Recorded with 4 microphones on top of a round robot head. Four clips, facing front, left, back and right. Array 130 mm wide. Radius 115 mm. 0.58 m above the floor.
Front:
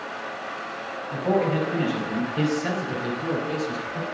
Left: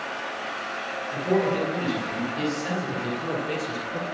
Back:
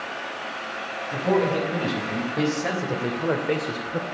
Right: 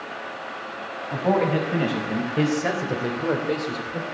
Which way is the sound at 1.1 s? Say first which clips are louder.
Right 2 dB, back 1 dB; 100° right.